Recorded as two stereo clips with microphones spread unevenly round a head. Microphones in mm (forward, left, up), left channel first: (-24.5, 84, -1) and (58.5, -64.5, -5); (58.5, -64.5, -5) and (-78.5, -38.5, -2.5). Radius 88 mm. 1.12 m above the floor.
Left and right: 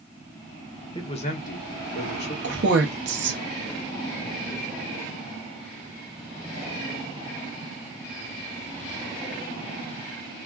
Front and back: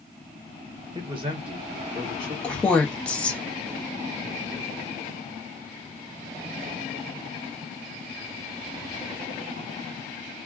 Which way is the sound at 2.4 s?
95° right.